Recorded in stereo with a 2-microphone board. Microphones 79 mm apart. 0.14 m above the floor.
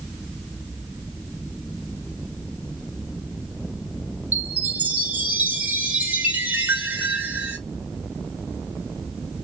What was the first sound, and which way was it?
A chime, 20° right (ahead or behind).